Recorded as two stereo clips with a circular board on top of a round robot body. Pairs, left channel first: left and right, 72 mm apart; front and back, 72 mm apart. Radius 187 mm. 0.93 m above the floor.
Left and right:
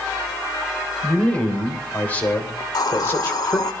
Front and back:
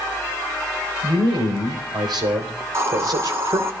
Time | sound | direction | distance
1.0 | a man speaking | 165° left | 4.5 m
2.6 | a hiss | 125° left | 1.9 m